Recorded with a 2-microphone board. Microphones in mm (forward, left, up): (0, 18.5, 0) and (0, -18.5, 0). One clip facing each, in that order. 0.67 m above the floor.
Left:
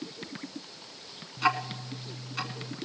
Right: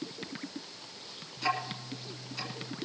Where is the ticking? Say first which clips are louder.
Left 5 dB; 40° left (ahead or behind), 1.6 m.